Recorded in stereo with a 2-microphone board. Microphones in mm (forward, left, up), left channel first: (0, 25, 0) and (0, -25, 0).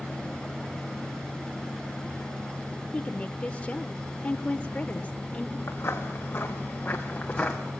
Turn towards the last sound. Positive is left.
turn(degrees=15)  # may be behind; listen again after turning